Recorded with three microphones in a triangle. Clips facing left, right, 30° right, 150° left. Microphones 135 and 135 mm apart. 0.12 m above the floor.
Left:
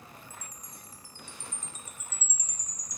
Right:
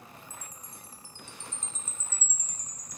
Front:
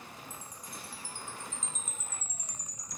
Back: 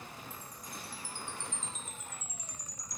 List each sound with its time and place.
0.3 s a chime: 15° left